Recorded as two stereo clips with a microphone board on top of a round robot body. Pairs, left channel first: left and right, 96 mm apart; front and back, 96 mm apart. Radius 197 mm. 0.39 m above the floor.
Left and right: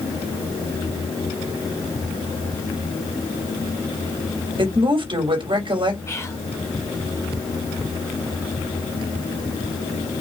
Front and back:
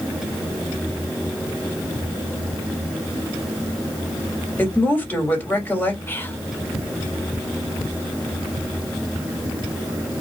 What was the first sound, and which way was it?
A woman speaking, 70° right.